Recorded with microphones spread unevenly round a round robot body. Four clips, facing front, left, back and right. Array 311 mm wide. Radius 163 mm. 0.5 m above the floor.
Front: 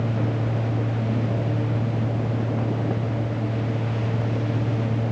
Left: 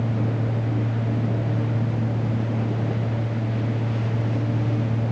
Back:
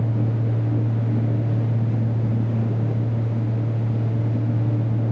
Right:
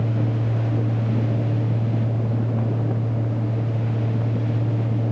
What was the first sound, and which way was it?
Only background noise.